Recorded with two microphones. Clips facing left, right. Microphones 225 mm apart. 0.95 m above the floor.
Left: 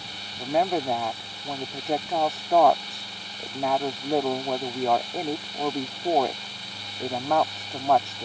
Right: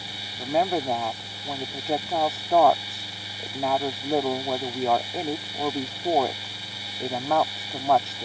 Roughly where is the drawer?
I don't hear a drawer.